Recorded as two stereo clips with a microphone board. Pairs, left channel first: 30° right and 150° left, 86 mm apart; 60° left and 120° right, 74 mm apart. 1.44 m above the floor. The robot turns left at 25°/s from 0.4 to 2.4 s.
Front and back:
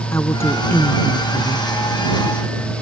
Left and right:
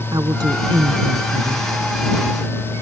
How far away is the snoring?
No snoring in this recording.